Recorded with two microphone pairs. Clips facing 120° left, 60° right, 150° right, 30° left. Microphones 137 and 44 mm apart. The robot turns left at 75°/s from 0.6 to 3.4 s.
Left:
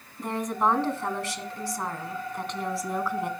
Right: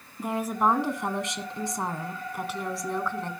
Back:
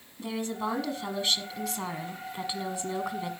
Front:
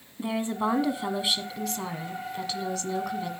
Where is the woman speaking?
10° left, 1.0 m; by 3.3 s 165° left, 1.0 m.